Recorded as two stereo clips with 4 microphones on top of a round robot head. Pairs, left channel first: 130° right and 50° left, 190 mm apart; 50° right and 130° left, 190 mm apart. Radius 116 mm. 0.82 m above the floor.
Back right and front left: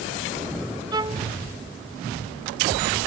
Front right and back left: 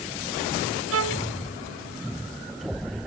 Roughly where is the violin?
Behind left.